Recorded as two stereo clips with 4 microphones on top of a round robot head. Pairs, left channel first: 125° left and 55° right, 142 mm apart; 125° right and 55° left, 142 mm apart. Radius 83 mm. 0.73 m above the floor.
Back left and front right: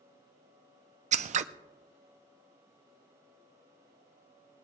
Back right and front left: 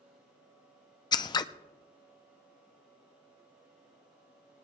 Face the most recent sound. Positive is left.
turn(degrees=-70)